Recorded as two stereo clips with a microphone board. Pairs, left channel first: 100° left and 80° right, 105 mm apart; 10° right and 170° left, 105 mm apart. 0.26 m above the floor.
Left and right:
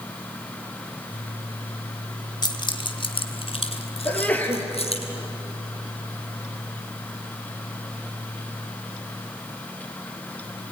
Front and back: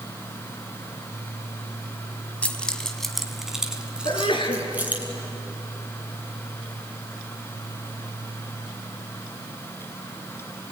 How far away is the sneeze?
About 5 m.